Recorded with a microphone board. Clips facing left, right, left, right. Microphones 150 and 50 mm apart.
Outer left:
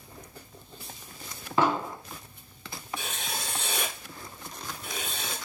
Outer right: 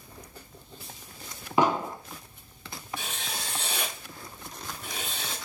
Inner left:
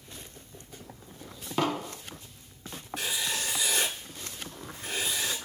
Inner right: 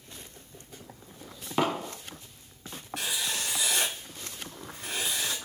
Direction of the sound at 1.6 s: 15° right (ahead or behind).